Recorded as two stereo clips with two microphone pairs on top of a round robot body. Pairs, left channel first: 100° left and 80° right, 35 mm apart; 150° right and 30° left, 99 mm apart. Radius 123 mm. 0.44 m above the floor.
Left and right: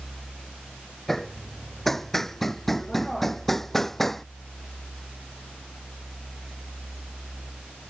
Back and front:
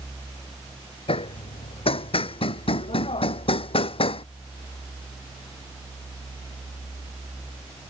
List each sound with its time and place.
1.1 s hammering: 175° right